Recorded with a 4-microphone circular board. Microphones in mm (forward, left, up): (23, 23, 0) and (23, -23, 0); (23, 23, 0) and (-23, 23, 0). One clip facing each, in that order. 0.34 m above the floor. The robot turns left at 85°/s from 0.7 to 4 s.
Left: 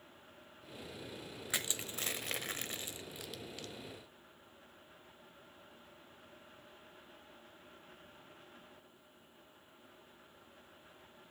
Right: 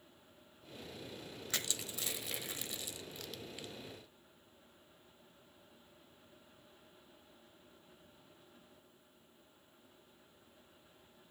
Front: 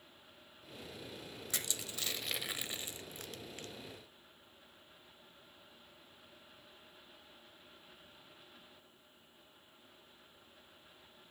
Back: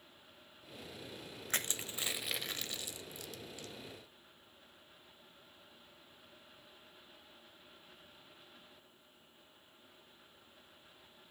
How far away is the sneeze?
I don't hear a sneeze.